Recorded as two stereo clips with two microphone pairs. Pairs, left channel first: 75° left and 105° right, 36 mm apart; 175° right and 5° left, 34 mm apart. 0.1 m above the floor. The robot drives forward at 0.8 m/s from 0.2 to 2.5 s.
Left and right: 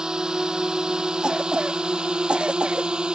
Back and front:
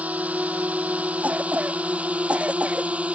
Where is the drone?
40° right; by 3.1 s 45° right.